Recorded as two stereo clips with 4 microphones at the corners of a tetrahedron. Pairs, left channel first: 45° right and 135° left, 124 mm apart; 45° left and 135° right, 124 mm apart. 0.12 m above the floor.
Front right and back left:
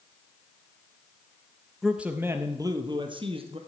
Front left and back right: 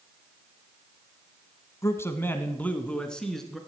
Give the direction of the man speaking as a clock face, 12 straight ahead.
10 o'clock.